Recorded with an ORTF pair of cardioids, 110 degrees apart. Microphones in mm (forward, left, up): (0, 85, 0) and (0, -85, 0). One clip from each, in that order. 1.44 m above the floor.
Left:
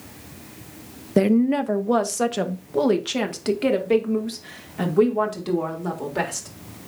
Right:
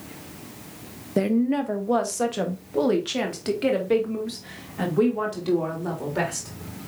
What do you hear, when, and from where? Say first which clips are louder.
1.2 s a woman speaking: left 4 dB; 20° left, 0.6 m; by 6.5 s 15° left, 3.5 m